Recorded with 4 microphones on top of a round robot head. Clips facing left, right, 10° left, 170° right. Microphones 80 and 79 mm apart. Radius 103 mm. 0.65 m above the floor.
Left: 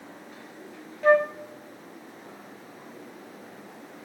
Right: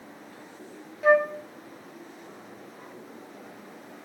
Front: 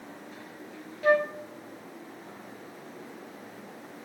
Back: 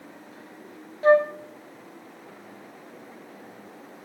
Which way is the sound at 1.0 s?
170° right.